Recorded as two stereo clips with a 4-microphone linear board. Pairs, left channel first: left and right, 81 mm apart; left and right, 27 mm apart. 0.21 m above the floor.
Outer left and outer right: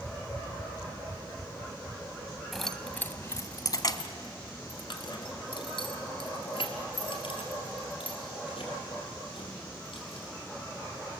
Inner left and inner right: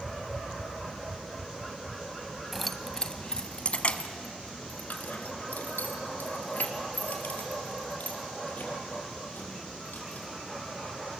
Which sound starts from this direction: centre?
Keys jangling, at 2.5 s.